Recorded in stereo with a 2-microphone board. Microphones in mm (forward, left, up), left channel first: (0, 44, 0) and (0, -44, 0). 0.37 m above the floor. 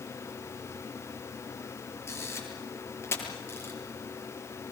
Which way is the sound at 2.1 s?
25° left (ahead or behind).